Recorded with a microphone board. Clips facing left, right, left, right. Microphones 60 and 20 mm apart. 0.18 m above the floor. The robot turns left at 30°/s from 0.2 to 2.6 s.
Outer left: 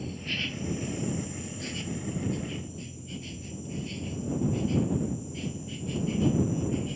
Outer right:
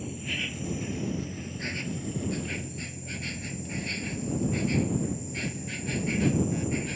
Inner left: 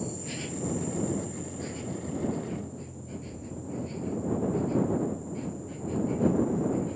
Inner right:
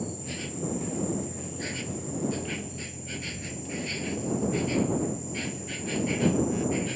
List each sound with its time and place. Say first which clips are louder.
0.0 s an insect: even, even; 10° right; by 7.0 s 80° right